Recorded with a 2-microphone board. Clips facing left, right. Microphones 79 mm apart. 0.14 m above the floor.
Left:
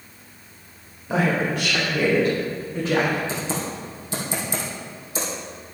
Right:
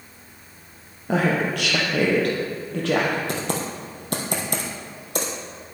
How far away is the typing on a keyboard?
About 2.5 m.